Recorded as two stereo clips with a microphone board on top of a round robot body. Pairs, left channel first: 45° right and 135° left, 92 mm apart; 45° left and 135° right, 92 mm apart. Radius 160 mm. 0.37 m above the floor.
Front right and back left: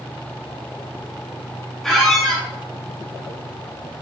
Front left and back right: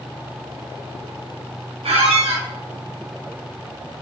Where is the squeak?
130° right, 2.5 m.